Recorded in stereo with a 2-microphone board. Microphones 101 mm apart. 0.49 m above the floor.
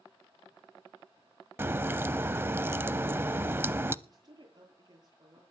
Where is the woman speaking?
45° right (ahead or behind), 9.5 m.